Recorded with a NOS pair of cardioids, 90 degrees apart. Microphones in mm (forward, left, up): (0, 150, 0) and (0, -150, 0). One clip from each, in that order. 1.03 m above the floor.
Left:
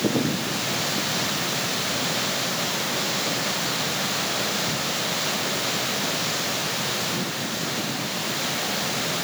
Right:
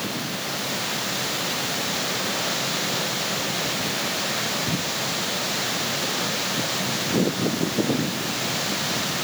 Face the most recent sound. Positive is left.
No sound to turn to.